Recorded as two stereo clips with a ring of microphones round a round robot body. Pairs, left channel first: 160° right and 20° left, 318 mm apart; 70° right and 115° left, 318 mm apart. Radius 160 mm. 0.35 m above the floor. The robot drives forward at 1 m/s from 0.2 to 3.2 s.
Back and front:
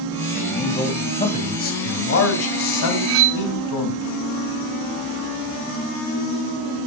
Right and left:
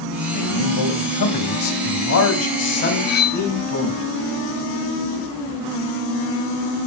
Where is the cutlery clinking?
10° right, 0.7 m; by 3.4 s 15° right, 0.6 m.